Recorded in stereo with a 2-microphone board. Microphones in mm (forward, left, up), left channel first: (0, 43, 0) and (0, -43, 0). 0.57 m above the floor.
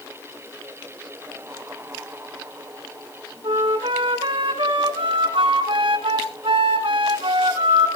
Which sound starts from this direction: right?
A flute, at 3.4 s.